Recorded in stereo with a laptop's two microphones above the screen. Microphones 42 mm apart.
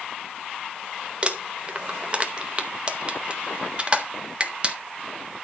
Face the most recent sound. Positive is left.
turn(degrees=-25)  # may be behind; listen again after turning